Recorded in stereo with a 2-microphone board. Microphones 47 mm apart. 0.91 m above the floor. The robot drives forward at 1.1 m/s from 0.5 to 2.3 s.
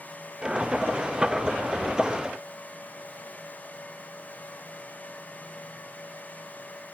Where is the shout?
I don't hear a shout.